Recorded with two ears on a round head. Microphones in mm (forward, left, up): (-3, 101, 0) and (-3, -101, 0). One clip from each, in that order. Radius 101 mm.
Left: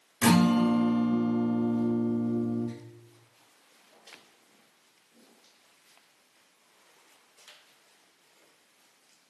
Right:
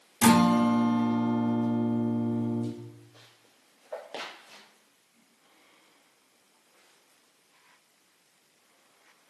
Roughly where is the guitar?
Right.